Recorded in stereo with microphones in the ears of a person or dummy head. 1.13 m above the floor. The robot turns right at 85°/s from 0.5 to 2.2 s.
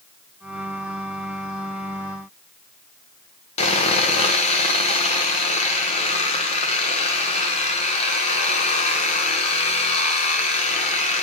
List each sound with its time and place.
3.6 s sawing: 35° left (ahead or behind), 0.9 m